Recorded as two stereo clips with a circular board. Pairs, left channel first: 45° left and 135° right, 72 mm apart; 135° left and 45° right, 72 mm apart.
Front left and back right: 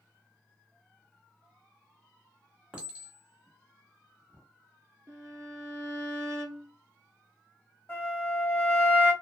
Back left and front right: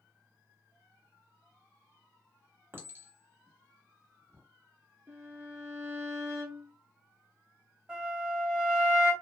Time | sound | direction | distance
2.7 | a clink | 70° right | 0.9 m
5.1 | a violin | 90° right | 0.6 m
7.9 | a flute | 25° left | 1.7 m